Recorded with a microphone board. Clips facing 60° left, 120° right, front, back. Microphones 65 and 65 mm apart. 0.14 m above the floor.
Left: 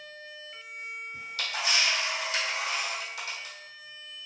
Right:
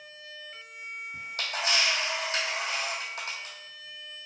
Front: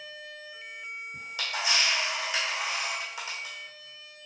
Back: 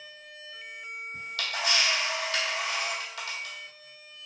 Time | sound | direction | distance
1.1 | a camera shutter | 75° right | 1.3 m